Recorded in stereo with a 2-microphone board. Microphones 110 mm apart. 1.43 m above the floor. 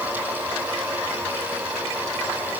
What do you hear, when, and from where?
Only background noise.